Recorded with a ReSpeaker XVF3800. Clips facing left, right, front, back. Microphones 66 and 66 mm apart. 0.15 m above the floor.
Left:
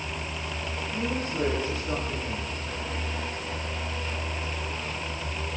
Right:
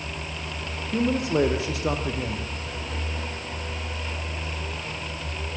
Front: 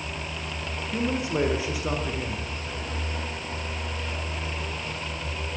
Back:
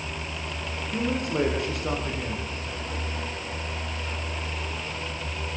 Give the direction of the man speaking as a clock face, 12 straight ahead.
3 o'clock.